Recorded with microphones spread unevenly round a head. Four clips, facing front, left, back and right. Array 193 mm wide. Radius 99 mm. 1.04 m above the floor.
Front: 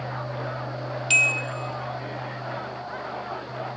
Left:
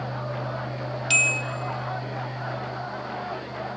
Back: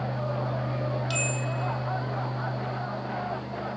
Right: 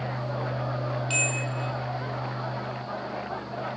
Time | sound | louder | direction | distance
1.1 | a bell | left 2 dB, front 3 dB | 80° left | 0.8 m